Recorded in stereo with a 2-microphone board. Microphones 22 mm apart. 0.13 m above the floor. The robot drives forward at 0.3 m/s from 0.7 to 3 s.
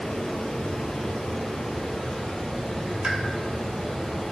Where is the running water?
60° left (ahead or behind), 1.3 m; by 4.3 s 40° left (ahead or behind), 1.7 m.